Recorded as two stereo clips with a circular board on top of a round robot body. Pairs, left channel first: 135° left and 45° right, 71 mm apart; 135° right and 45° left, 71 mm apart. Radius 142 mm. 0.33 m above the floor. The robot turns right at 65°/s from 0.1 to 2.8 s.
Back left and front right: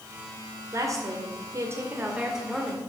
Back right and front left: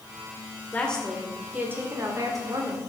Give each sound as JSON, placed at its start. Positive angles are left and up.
{"t": 0.7, "sound": "a woman speaking", "azimuth_deg": -70, "distance_m": 2.0}